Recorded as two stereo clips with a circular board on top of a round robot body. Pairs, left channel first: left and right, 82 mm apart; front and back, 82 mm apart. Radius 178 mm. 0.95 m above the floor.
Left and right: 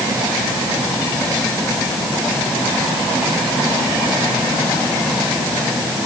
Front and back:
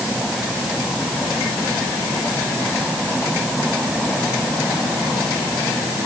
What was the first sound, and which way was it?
Only background noise.